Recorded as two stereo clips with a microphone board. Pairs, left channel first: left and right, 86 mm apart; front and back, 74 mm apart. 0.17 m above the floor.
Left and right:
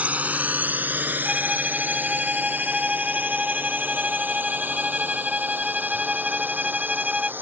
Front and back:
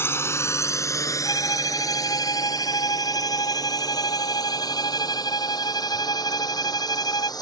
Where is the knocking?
No knocking in this recording.